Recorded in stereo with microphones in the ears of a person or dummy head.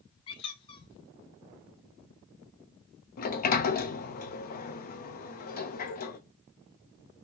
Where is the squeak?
25° left (ahead or behind), 0.9 m.